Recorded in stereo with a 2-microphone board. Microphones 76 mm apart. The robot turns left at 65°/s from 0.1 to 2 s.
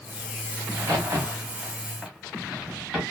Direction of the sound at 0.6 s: 55° right (ahead or behind).